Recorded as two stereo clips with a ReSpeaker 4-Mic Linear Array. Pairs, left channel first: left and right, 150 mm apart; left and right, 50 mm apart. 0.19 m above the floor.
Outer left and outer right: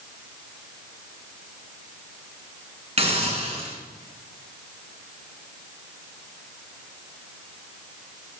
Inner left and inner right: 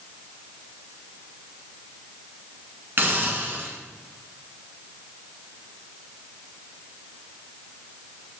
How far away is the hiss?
About 1.6 m.